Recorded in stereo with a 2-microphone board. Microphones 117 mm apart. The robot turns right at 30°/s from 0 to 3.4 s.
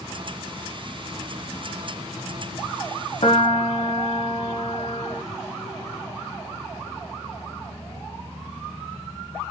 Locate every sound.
3.2 s a piano: 60° left (ahead or behind), 0.8 m